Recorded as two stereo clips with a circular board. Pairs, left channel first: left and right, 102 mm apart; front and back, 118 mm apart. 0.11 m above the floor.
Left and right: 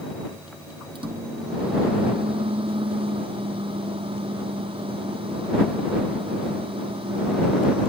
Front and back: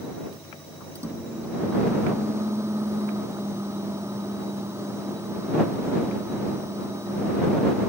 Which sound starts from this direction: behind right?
A microwave, at 0.9 s.